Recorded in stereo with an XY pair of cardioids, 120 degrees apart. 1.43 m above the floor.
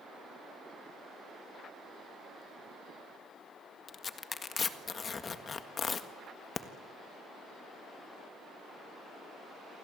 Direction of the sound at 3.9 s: 35° left.